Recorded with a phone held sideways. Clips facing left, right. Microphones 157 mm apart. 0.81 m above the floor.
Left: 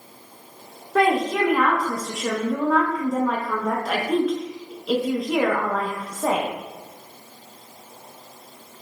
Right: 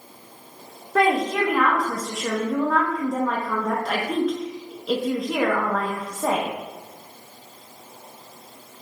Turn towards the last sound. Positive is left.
turn(degrees=5)  # may be behind; listen again after turning